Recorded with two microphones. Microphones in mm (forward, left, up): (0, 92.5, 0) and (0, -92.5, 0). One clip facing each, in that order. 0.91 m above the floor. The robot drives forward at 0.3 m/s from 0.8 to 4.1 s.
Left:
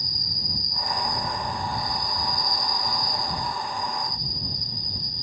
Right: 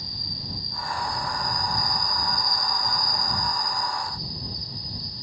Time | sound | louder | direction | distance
0.0 | an insect | even | 30° right (ahead or behind) | ?